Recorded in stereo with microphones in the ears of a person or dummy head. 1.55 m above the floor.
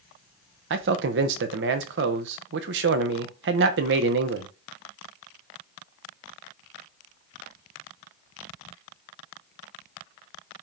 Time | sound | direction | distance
0.7 | a man speaking | 65° right (ahead or behind) | 0.9 m